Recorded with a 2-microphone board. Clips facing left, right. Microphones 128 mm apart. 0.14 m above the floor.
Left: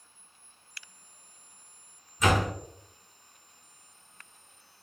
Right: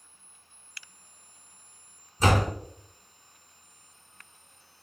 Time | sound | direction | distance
2.2 | a door slam | 35° right (ahead or behind) | 1.4 m